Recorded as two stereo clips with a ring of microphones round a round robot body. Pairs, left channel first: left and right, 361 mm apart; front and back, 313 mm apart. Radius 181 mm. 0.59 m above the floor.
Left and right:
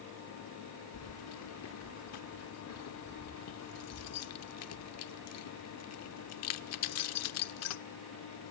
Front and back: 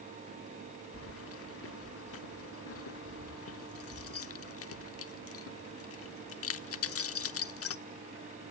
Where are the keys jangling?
45° left, 1.1 m.